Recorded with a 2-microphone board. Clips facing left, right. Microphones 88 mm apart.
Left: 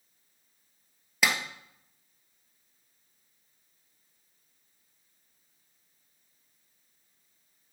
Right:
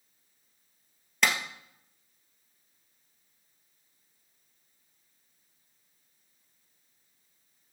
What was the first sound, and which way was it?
A clap, 5° left (ahead or behind).